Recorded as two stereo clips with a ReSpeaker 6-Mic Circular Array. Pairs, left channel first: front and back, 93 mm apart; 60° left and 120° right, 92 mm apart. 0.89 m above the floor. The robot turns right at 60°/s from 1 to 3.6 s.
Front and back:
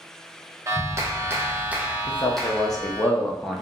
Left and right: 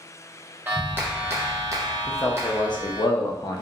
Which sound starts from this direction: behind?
A clap, at 0.7 s.